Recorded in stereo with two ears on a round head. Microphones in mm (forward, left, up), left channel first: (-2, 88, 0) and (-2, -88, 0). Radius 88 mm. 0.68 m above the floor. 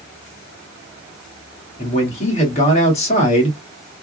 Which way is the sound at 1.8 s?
35° left (ahead or behind).